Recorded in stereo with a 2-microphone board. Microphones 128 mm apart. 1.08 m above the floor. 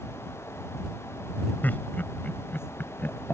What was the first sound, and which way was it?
Laughter, 15° left (ahead or behind).